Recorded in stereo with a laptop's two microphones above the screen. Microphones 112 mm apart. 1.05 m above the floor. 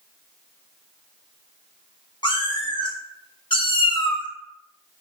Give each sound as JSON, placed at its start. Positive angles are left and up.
{"t": 2.2, "sound": "a cat meowing", "side_deg": 45, "distance_m": 1.4}